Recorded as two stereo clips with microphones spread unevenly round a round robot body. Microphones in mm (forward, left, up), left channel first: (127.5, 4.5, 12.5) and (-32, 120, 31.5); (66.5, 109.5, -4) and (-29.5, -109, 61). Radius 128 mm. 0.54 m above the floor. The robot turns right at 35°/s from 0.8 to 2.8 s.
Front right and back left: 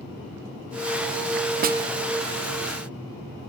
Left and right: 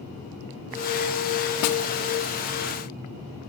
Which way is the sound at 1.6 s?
95° left.